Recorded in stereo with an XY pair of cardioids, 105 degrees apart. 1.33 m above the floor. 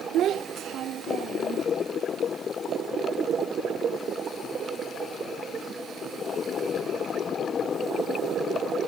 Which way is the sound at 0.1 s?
70° right.